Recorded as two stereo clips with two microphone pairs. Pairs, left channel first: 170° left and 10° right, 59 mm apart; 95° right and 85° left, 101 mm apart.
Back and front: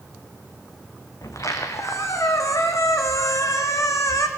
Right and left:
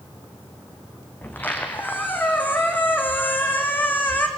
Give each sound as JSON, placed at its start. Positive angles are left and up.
{"t": 1.2, "sound": "a squeak", "azimuth_deg": -165, "distance_m": 3.0}